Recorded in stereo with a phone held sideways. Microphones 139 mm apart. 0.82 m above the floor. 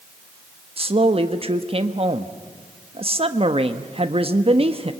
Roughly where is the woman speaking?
Right.